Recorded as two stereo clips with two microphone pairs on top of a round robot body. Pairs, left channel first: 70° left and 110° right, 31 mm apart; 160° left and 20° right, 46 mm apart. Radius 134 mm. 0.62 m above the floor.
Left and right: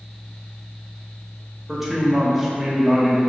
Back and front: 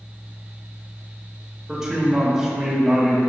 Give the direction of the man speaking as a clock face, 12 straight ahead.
2 o'clock.